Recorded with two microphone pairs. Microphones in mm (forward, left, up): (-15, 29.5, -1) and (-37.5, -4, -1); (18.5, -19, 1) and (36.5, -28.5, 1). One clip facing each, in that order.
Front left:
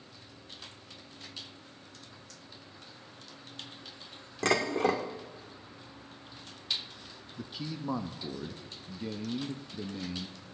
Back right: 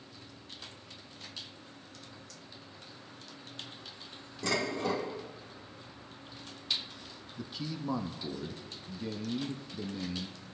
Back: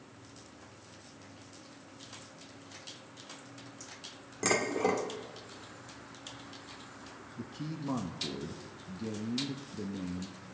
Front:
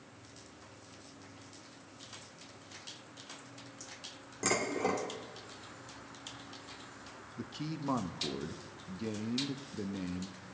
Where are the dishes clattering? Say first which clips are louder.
Front left 5 dB, back 3 dB; 75° left, 1.2 m.